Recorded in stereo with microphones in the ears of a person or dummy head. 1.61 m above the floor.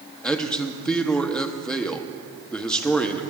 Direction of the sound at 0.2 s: 5° left (ahead or behind).